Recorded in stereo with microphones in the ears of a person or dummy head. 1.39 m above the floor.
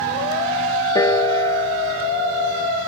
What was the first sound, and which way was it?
A piano, 15° left (ahead or behind).